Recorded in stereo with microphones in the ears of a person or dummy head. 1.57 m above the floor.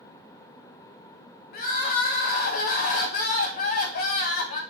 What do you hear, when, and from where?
1.5 s crying: 50° left (ahead or behind), 1.0 m